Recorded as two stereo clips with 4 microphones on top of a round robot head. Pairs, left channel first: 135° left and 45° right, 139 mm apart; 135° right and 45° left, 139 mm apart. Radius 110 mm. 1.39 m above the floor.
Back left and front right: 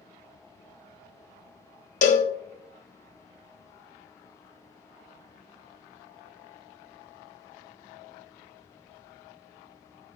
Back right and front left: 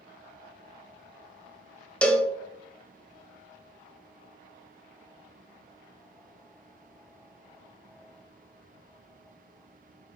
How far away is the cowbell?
About 0.7 m.